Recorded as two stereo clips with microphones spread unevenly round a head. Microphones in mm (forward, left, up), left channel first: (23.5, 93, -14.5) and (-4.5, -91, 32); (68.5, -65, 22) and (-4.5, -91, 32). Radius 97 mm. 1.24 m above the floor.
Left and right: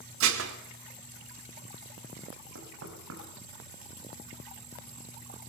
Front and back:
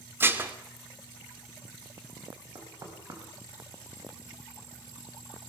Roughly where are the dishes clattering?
Right.